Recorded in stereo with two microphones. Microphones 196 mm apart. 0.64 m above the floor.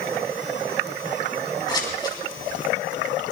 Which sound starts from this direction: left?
Scissors, at 1.7 s.